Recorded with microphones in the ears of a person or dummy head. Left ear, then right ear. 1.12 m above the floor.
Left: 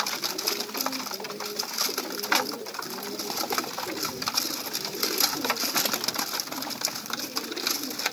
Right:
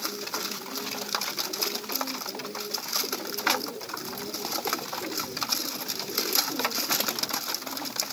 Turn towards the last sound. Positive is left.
No sound to turn to.